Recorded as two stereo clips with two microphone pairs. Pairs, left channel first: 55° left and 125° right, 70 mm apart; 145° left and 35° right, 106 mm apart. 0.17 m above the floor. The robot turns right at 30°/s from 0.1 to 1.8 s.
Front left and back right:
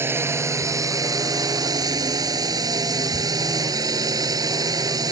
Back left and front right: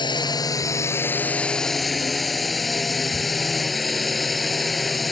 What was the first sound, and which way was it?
A drone, 175° right.